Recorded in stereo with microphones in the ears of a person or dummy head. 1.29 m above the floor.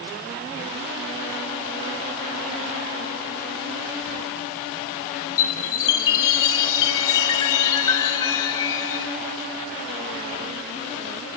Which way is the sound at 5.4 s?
15° left (ahead or behind).